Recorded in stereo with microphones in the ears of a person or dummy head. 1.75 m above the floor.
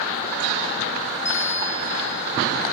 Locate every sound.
1.2 s a bell: 15° left (ahead or behind), 5 m